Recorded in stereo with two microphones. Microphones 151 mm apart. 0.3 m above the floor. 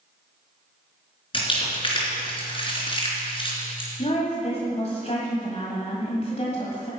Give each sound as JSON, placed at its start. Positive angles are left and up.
{"t": 1.3, "sound": "crumpling", "side_deg": 35, "distance_m": 3.0}
{"t": 4.0, "sound": "a woman speaking", "side_deg": 45, "distance_m": 1.6}